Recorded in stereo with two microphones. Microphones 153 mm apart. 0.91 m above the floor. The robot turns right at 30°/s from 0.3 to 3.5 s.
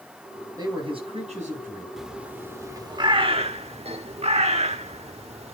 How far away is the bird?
About 0.9 m.